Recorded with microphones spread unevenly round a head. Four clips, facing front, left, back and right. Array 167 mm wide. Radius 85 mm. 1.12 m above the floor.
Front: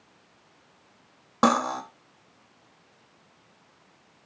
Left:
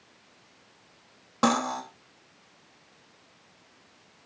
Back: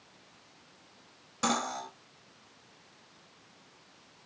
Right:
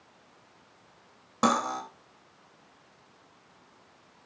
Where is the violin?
No violin in this recording.